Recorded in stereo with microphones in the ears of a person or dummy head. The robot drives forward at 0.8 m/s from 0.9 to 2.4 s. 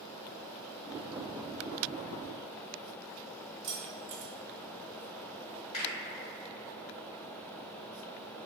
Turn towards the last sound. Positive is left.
turn(degrees=35)  # may be behind; listen again after turning